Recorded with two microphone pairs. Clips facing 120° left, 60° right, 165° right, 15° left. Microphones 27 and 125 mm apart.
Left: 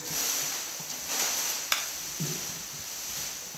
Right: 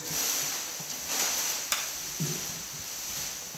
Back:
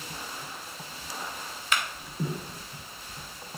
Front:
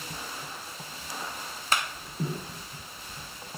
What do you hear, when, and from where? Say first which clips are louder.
1.7 s a clap: left 3 dB, front 1 dB; 65° left, 1.0 m